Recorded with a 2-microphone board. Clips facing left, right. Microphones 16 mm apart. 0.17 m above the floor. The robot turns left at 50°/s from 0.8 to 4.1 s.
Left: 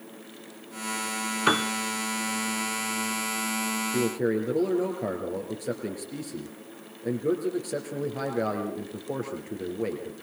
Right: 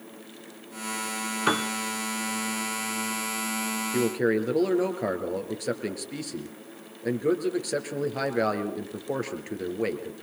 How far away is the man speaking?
About 3 m.